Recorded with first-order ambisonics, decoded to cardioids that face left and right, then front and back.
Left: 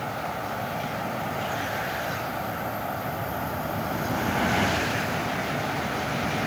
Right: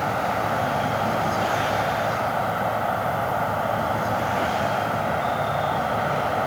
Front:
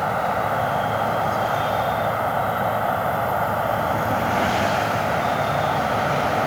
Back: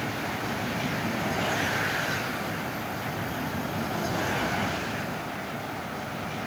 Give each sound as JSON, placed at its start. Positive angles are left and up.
{"t": 0.0, "sound": "an insect", "azimuth_deg": -35}